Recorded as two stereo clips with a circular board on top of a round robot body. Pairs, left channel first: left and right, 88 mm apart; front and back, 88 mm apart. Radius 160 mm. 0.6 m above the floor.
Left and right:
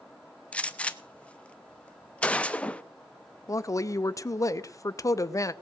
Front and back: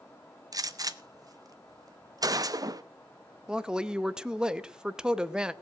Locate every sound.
0.5 s a gunshot: 160° left, 1.1 m
3.5 s a woman speaking: 105° left, 1.0 m